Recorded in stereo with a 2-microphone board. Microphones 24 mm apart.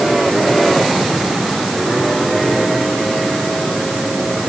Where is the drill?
I don't hear a drill.